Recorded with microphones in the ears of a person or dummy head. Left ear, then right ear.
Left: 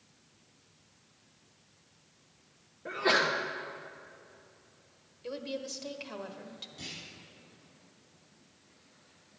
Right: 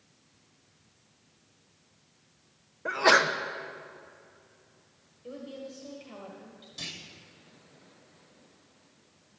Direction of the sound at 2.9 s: 45° right (ahead or behind).